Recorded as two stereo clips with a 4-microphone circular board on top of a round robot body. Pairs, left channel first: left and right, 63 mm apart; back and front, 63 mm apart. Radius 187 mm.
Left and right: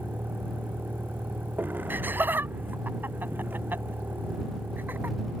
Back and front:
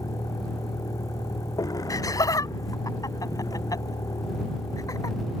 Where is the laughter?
150° right.